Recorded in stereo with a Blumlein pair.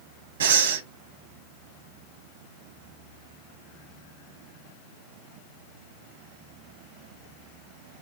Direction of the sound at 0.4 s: 65° right.